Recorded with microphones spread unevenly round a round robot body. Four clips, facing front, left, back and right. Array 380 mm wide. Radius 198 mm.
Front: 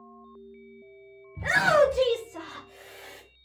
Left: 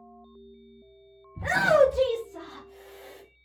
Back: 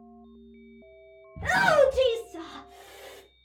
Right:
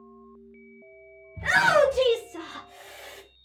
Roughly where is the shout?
Behind left.